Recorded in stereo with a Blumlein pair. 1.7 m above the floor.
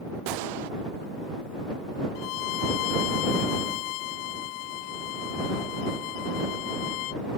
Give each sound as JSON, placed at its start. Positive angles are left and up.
{"t": 0.3, "sound": "a gunshot", "azimuth_deg": -45}
{"t": 2.1, "sound": "a violin", "azimuth_deg": 45}